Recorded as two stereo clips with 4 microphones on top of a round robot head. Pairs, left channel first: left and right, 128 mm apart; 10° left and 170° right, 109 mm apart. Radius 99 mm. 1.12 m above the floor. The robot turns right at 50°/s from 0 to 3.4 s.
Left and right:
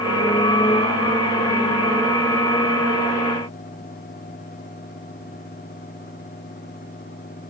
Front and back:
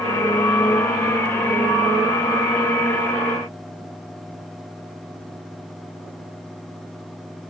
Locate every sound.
Only background noise.